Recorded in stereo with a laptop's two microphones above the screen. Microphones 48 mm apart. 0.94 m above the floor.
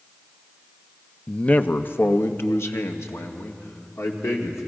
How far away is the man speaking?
About 0.7 m.